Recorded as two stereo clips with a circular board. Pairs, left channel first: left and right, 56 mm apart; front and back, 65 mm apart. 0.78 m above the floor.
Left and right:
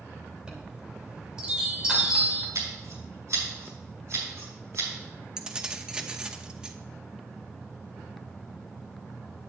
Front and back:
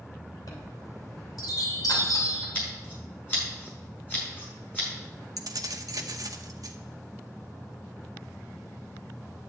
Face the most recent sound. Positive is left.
turn(degrees=-160)